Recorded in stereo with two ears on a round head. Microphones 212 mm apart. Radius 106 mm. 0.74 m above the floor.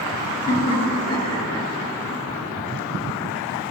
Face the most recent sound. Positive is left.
turn(degrees=5)  # may be behind; listen again after turning